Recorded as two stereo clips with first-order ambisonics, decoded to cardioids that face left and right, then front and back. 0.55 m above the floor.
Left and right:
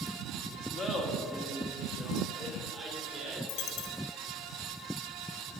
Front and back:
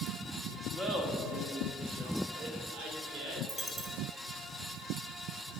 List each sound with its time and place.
0.7 s laughter: 130° left, 0.9 m; by 3.4 s 140° right, 1.9 m
3.5 s a dropped coin: 105° left, 0.7 m